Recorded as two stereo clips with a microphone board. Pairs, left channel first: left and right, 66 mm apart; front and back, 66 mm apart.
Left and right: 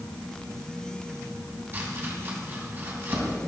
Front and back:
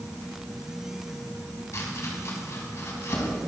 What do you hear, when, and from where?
1.7 s chopping: 40° right, 3 m